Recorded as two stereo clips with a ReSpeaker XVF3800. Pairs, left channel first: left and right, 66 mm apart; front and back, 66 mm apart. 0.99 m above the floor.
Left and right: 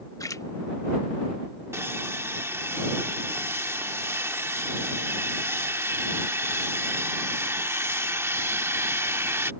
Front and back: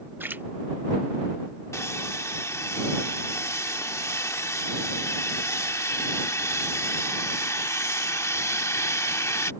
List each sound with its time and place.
0.2 s a splash: 120° left
1.7 s sawing: 40° right